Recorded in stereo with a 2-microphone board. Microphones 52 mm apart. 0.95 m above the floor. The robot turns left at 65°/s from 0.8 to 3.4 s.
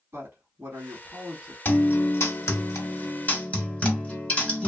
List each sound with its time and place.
0.1 s a woman speaking: 110° right, 2 m; by 1.6 s 155° right, 2 m
1.6 s a guitar: 145° left, 1.1 m; by 4.7 s 30° left, 1.1 m